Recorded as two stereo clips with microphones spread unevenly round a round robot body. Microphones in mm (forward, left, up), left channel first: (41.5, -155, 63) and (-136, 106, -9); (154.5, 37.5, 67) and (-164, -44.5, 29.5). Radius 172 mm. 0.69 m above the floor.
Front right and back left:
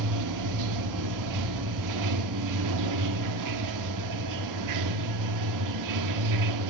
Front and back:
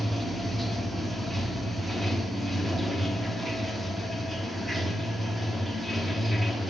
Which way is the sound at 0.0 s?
105° left.